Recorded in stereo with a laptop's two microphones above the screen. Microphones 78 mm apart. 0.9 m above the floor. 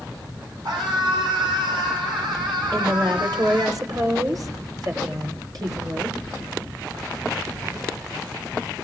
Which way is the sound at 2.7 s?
55° right (ahead or behind).